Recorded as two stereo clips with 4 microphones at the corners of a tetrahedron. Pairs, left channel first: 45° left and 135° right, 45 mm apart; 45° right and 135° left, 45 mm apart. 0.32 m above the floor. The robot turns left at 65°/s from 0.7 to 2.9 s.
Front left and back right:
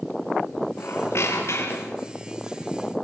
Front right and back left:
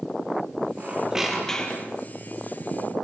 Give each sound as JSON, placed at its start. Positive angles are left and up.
{"t": 0.8, "sound": "a squeak", "azimuth_deg": 80, "distance_m": 4.5}